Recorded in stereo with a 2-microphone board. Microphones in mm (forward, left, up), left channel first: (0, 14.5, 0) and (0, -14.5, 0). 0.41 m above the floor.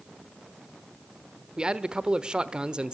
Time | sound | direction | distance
1.6 | a man speaking | 30° right (ahead or behind) | 1.0 m